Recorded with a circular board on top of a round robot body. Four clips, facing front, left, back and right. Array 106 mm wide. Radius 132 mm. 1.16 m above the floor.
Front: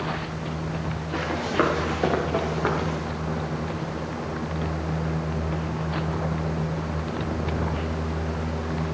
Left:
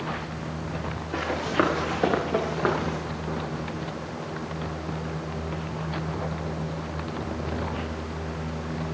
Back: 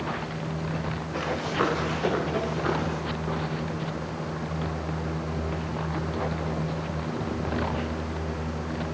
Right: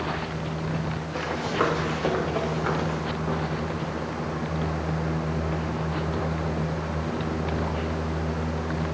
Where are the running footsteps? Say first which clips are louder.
Left 2 dB, front 4 dB; 50° left, 5 m; by 3.0 s 55° left, 3.5 m.